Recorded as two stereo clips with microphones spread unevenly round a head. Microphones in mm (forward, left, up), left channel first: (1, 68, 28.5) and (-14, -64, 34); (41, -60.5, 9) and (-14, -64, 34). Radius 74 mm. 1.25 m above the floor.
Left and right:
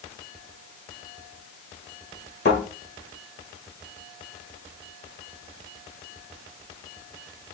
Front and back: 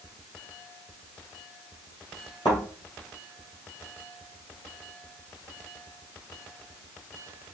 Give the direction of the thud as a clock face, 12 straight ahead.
10 o'clock.